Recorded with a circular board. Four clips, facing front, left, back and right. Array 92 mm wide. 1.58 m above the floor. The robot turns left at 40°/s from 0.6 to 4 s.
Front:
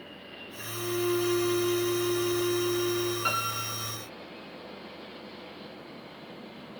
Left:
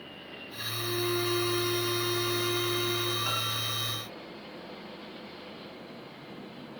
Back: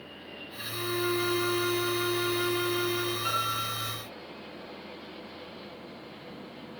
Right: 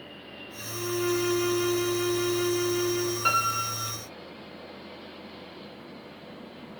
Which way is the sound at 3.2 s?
70° right.